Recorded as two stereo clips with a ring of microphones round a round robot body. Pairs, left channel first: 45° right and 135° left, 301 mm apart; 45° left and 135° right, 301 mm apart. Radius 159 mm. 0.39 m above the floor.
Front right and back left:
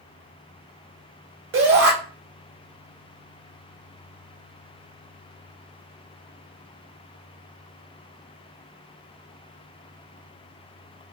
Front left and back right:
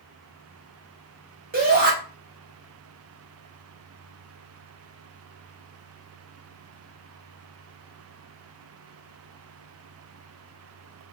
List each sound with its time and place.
1.5 s a shout: 170° left, 1.9 m